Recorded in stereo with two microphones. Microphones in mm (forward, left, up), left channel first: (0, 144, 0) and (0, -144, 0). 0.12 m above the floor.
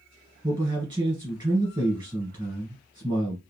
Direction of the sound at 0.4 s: 15° right (ahead or behind).